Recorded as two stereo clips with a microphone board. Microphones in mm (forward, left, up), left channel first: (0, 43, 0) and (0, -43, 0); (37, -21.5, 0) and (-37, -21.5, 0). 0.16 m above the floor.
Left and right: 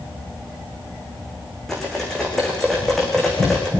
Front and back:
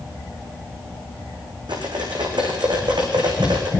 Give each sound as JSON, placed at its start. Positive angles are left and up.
{"t": 1.7, "sound": "cutlery clinking", "azimuth_deg": 175, "distance_m": 6.0}